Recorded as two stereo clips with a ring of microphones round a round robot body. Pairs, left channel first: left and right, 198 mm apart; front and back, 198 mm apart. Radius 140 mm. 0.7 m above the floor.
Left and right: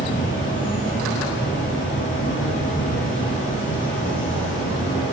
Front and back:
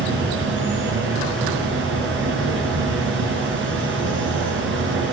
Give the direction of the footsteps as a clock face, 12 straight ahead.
I don't hear footsteps.